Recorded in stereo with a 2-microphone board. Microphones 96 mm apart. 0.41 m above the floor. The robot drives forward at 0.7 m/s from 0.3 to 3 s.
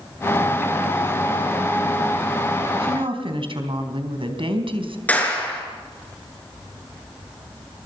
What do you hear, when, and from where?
2.8 s a woman speaking: 65° right (ahead or behind), 4 m
5.1 s a clap: 15° left (ahead or behind), 6 m